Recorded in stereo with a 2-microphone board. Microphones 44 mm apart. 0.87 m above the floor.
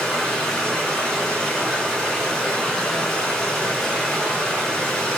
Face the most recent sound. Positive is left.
turn(degrees=5)  # may be behind; listen again after turning